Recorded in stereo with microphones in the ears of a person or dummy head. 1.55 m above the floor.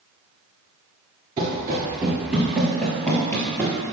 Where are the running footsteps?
20° right (ahead or behind), 1.6 m; by 3.8 s 15° left (ahead or behind), 2 m.